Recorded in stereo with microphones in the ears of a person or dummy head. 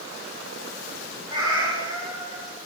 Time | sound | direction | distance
1.3 | a cat meowing | 30° right (ahead or behind) | 6.5 m